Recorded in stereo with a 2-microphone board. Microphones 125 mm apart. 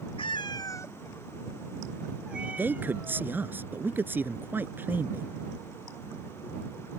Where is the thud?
No thud in this recording.